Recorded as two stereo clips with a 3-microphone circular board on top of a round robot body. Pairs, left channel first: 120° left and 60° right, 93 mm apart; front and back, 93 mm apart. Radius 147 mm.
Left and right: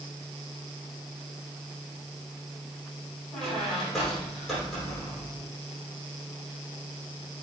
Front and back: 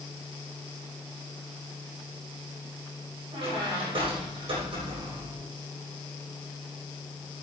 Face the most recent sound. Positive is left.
turn(degrees=-155)